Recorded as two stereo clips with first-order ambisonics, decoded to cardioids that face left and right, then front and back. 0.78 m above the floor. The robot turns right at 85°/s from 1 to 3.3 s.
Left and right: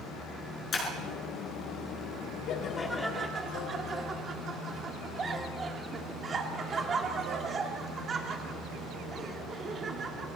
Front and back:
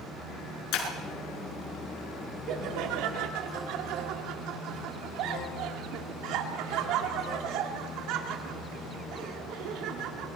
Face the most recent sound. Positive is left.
turn(degrees=-155)